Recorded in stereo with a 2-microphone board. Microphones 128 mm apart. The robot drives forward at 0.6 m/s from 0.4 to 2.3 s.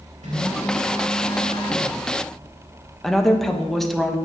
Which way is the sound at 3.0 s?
Centre (ahead or behind).